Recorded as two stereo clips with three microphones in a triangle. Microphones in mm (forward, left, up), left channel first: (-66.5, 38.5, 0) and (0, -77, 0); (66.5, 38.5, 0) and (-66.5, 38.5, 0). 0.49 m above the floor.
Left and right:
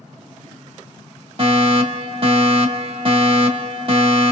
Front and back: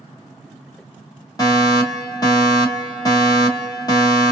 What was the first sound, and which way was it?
A fire alarm, 45° right.